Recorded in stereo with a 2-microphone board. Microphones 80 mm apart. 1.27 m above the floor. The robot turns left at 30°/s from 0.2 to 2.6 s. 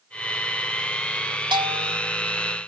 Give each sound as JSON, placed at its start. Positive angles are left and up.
{"t": 1.5, "sound": "a bell", "side_deg": -80, "distance_m": 3.5}